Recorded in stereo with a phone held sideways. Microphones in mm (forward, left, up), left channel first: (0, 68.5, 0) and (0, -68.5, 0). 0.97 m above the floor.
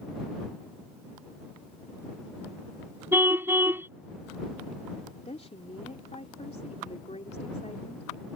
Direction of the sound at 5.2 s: 55° left (ahead or behind).